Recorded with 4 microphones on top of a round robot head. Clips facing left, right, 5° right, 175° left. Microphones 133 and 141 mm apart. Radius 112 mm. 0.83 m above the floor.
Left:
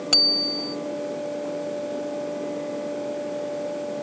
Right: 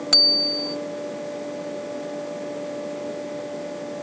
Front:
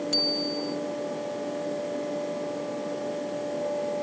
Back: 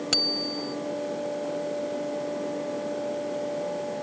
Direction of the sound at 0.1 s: 165° left.